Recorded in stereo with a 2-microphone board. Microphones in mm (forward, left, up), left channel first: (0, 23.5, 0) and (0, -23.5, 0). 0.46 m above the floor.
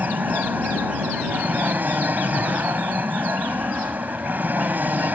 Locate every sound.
0.0 s an aircraft: 40° right (ahead or behind)